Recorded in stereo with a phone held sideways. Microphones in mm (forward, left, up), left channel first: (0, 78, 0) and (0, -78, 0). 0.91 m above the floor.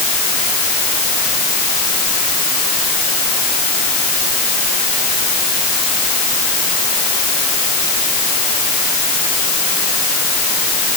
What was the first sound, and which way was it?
Only background noise.